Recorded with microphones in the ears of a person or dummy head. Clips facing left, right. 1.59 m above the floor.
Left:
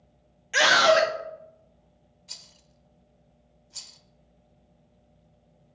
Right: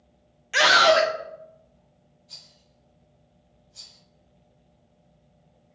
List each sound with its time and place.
0.5 s a scream: centre (ahead or behind), 0.6 m
2.3 s a rattle: 75° left (ahead or behind), 0.5 m